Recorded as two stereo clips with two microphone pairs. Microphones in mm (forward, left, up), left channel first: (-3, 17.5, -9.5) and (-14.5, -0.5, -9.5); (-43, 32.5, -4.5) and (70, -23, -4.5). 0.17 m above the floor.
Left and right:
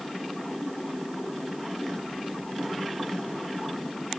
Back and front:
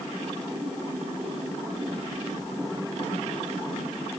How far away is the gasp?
I don't hear a gasp.